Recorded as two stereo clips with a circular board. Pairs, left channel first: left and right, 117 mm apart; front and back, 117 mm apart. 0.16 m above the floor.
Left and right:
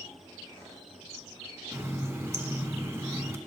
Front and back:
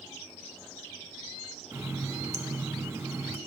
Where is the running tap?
135° right, 1.1 m.